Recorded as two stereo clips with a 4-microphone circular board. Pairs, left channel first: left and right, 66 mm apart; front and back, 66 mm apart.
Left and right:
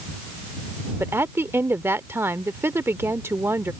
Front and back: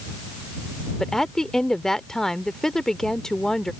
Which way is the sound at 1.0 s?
80° right.